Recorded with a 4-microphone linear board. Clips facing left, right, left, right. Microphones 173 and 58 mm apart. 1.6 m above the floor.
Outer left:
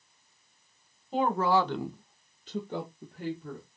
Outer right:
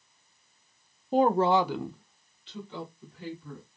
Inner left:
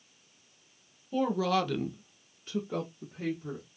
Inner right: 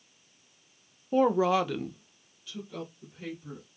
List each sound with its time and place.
1.1 s a woman speaking: 45° right (ahead or behind), 0.7 m; by 3.6 s 55° left (ahead or behind), 1.6 m